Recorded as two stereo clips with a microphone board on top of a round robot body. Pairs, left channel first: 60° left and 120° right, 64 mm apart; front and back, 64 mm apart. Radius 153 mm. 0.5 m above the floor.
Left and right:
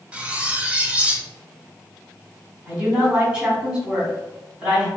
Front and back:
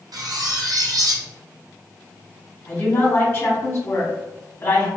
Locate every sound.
0.1 s cutlery clinking: 170° left, 0.6 m
2.7 s a woman speaking: 50° right, 1.9 m